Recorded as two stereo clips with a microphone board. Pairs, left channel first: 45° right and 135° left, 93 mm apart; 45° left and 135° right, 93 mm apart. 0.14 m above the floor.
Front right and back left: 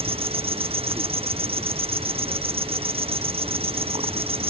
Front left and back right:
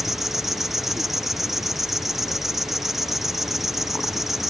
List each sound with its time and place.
0.0 s an insect: 140° left